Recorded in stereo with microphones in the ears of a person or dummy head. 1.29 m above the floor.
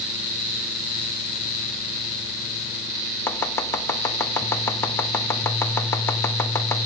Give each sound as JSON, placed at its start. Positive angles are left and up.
{"t": 3.3, "sound": "chopping", "side_deg": 15, "distance_m": 1.3}